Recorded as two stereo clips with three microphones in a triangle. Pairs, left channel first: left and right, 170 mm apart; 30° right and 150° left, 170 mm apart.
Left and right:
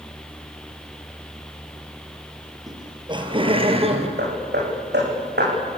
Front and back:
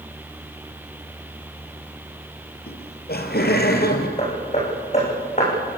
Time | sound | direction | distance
2.7 | laughter | 25° right | 3.5 m
4.2 | hammering | 80° right | 10 m